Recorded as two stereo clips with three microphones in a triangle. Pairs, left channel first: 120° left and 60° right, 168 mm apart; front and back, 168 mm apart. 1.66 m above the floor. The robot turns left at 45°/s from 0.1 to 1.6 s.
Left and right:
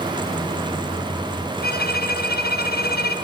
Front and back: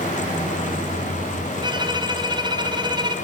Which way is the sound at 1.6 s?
120° left.